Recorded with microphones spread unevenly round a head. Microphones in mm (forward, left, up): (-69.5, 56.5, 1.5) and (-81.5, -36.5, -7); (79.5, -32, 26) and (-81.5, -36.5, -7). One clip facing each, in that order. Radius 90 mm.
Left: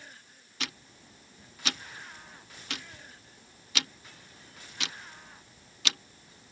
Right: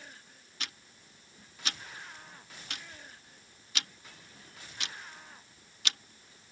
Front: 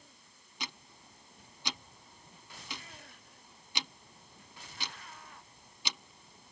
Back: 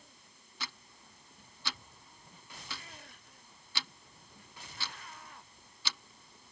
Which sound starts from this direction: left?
Ticking, at 0.6 s.